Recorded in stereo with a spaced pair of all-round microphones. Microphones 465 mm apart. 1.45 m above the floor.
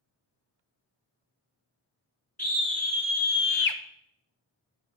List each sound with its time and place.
2.4 s a scream: 20° left (ahead or behind), 0.9 m; by 3.8 s 75° left (ahead or behind), 0.7 m